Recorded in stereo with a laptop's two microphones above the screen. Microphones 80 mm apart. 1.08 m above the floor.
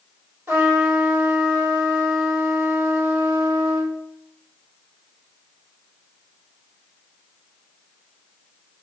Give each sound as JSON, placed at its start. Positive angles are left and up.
{"t": 0.5, "sound": "a trumpet", "side_deg": -30, "distance_m": 1.5}